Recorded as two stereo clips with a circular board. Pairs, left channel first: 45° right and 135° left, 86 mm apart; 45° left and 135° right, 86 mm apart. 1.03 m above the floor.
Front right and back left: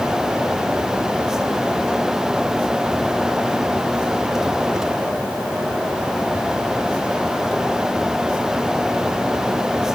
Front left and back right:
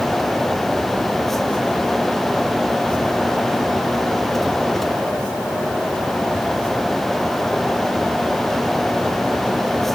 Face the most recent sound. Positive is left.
No sound to turn to.